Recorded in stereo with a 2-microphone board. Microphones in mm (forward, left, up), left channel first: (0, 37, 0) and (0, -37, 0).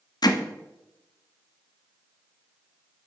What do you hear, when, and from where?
0.2 s hammering: 65° left (ahead or behind), 0.8 m